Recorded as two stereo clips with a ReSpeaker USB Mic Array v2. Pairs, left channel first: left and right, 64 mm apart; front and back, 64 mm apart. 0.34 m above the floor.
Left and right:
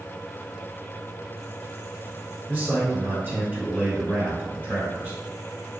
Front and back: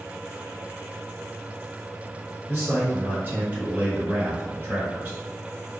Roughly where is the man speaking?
Behind right.